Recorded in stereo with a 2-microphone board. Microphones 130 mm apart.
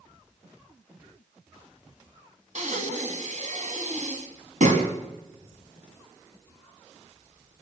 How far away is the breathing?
About 2.5 m.